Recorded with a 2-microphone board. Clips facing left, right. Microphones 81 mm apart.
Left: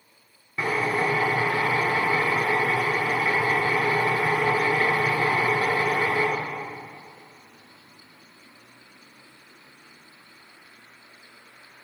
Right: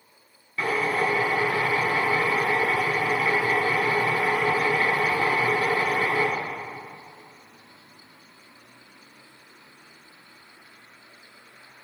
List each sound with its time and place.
0.6 s a drill: 20° left (ahead or behind), 2.5 m